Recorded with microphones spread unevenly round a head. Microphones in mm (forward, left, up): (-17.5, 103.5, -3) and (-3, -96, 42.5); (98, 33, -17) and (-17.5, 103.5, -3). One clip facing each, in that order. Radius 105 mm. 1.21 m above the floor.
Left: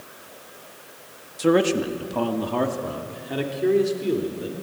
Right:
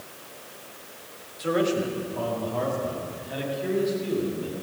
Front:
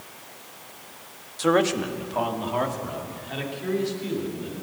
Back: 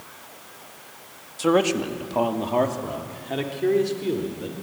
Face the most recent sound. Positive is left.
turn(degrees=125)